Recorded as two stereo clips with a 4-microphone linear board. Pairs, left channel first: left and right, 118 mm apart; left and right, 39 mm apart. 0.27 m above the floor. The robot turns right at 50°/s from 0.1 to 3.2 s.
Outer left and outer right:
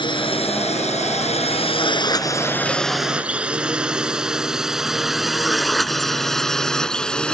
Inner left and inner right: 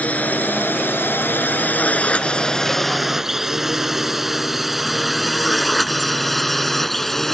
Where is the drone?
45° left (ahead or behind); by 7.3 s 5° left (ahead or behind).